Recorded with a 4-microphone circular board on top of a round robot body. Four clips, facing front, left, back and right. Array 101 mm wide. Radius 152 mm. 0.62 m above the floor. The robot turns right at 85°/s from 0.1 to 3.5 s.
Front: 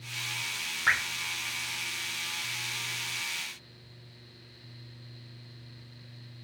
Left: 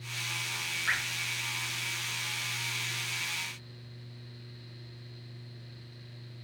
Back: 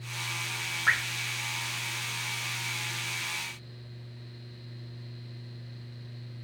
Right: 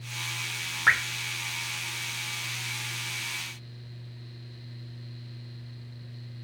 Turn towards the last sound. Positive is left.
turn(degrees=140)